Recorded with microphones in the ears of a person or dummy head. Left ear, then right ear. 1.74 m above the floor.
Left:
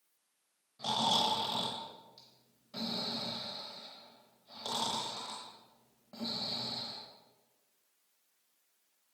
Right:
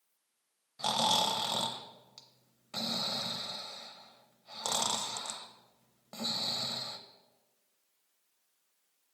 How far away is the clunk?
I don't hear a clunk.